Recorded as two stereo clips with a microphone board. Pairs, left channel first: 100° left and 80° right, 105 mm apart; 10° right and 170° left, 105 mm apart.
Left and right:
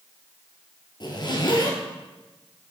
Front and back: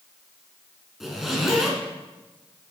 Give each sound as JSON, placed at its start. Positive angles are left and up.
{"t": 1.0, "sound": "a zipper", "azimuth_deg": 85, "distance_m": 2.0}